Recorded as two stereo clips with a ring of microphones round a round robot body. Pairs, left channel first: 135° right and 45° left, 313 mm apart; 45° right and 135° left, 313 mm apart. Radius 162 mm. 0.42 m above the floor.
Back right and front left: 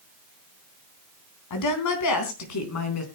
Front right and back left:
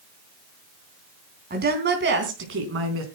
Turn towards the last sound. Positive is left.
turn(degrees=-175)